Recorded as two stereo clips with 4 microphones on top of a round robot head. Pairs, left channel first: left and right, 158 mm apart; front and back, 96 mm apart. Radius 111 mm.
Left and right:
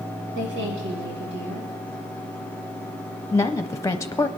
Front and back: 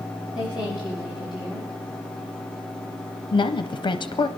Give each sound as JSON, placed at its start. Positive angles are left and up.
{"t": 0.3, "sound": "a woman speaking", "azimuth_deg": -95, "distance_m": 5.0}
{"t": 3.3, "sound": "a woman speaking", "azimuth_deg": 20, "distance_m": 0.7}